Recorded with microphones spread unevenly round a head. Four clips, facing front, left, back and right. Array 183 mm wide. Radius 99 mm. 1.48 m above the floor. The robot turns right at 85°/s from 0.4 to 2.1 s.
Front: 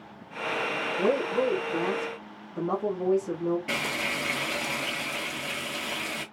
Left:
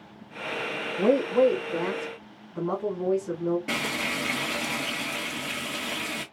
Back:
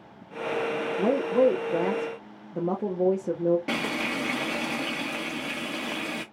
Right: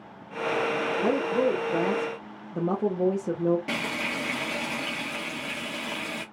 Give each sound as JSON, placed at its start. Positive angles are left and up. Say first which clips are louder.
{"t": 1.0, "sound": "a woman speaking", "louder": "left 6 dB, back 4 dB", "azimuth_deg": 125, "distance_m": 1.0}
{"t": 3.7, "sound": "frying", "louder": "even, back 2 dB", "azimuth_deg": 175, "distance_m": 1.0}